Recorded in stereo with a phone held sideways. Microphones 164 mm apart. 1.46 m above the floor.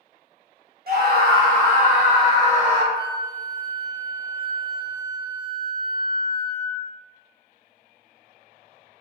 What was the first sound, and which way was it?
A scream, 65° right (ahead or behind).